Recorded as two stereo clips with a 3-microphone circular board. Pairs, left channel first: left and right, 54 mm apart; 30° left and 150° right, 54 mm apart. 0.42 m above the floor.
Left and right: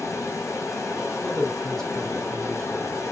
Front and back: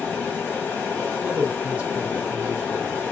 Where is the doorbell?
No doorbell in this recording.